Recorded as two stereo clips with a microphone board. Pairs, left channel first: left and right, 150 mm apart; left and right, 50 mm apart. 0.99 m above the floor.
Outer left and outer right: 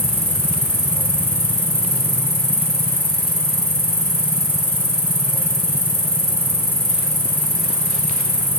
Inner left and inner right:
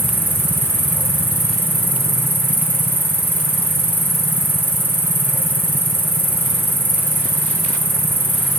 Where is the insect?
40° right (ahead or behind), 4 m.